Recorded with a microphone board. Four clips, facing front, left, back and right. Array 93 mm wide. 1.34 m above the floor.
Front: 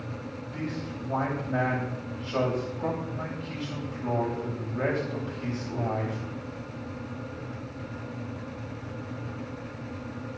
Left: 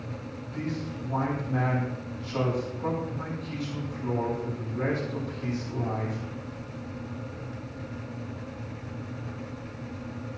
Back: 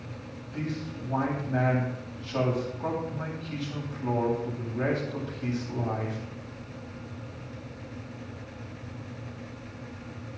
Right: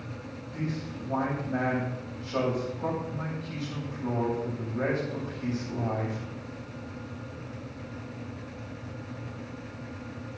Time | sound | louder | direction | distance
0.5 | a man speaking | left 1 dB, back 1 dB | 25° right | 8.5 m